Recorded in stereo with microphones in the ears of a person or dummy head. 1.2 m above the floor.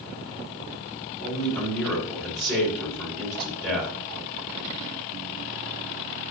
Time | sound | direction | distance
1.2 | a man speaking | 5° left (ahead or behind) | 4.5 m